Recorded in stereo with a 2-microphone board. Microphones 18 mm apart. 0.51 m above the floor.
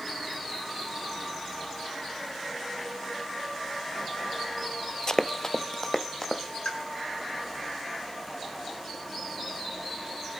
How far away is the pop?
About 5 m.